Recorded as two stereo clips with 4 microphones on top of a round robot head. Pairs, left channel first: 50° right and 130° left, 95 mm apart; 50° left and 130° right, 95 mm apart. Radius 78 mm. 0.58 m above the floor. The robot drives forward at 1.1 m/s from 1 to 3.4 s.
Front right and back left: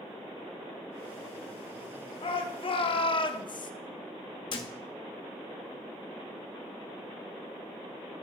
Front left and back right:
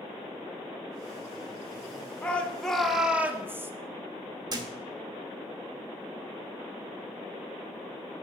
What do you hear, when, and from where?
2.2 s a shout: 25° right, 2.0 m; by 3.7 s 65° right, 1.1 m
4.5 s a thud: 85° right, 1.4 m